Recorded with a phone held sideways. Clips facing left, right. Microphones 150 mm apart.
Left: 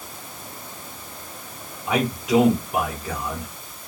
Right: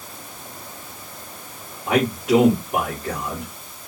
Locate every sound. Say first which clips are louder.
1.9 s a man speaking: right 3 dB; 55° right (ahead or behind), 2.0 m